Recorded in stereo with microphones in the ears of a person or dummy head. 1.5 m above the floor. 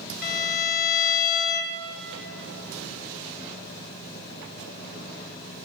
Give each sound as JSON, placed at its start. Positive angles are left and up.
{"t": 0.2, "sound": "a violin", "side_deg": 45, "distance_m": 0.6}